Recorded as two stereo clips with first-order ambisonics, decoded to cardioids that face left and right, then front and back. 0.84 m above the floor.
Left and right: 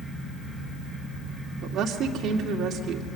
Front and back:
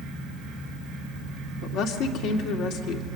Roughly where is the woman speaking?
Ahead right.